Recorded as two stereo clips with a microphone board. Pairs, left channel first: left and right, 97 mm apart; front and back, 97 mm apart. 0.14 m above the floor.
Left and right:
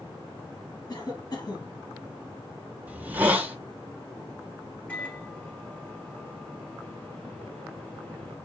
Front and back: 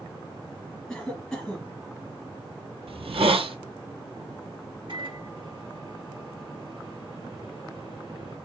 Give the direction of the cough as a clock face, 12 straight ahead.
9 o'clock.